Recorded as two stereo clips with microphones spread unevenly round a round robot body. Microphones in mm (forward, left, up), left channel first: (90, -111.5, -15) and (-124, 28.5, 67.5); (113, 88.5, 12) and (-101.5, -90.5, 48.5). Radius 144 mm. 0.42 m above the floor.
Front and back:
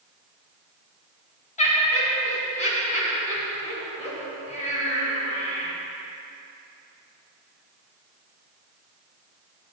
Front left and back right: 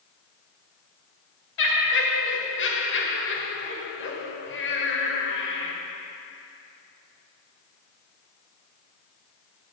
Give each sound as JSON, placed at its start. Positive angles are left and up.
{"t": 1.6, "sound": "laughter", "azimuth_deg": 10, "distance_m": 1.7}